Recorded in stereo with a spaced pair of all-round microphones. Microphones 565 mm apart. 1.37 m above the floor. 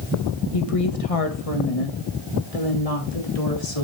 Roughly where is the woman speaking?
Left.